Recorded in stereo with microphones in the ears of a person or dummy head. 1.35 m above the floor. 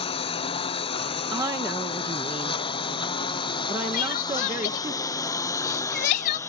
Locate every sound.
0.0 s a lawn mower: 30° left (ahead or behind); by 6.5 s 20° left (ahead or behind)
1.3 s a woman speaking: 20° right (ahead or behind)
3.9 s crying: 45° left (ahead or behind)